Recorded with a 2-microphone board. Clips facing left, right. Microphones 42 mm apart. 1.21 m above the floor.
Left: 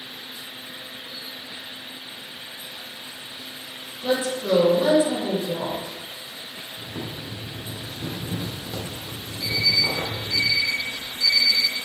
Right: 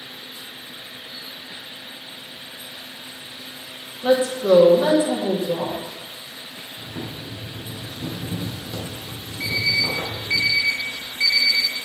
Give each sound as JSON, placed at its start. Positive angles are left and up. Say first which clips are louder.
{"t": 4.0, "sound": "a woman speaking", "louder": "right 6 dB", "side_deg": -35, "distance_m": 2.5}
{"t": 6.8, "sound": "boiling", "louder": "right 1 dB", "side_deg": 10, "distance_m": 2.0}
{"t": 9.4, "sound": "an alarm clock", "louder": "right 1 dB", "side_deg": -75, "distance_m": 2.0}